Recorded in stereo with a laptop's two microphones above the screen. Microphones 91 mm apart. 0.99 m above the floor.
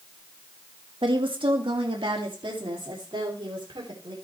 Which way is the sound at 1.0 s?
70° right (ahead or behind).